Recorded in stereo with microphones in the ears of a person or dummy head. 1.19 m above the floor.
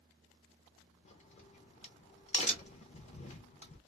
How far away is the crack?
About 0.7 m.